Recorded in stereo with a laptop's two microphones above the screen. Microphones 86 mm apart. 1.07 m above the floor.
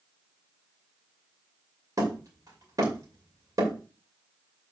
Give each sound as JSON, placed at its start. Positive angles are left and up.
{"t": 2.0, "sound": "hammering", "side_deg": -45, "distance_m": 2.5}